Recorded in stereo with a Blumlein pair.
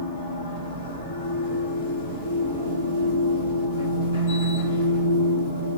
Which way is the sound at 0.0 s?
60° left.